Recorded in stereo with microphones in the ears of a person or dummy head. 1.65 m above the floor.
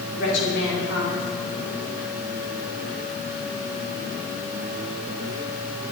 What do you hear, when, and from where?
0.1 s a woman speaking: 65° left (ahead or behind), 6 m